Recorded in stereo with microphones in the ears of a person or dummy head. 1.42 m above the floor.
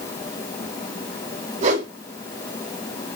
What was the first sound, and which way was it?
A whoosh, 40° right (ahead or behind).